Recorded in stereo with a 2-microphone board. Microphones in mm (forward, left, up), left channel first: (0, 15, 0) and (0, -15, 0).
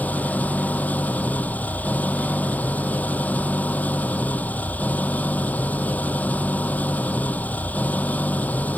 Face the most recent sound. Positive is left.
turn(degrees=55)  # may be behind; listen again after turning